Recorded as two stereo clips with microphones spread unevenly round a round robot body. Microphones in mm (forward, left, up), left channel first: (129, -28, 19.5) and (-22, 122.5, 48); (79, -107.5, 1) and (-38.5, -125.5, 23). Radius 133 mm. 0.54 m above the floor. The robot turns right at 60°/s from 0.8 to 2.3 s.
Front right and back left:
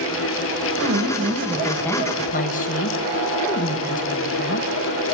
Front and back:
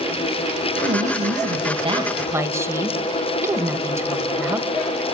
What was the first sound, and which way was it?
A woman speaking, 170° left.